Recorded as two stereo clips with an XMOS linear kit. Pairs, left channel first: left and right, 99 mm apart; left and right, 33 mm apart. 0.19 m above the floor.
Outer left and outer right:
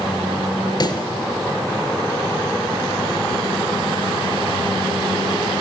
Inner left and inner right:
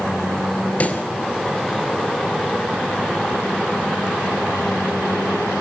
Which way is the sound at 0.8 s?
50° left (ahead or behind).